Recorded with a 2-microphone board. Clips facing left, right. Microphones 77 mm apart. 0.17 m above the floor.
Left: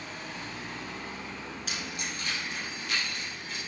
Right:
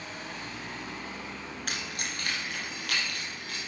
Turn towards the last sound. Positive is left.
turn(degrees=-70)  # may be behind; listen again after turning